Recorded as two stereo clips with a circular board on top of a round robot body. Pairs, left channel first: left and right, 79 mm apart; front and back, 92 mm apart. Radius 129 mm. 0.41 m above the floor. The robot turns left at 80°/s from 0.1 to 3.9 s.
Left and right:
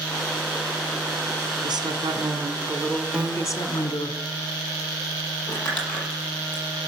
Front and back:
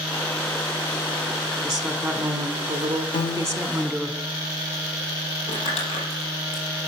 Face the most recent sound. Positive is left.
turn(degrees=15)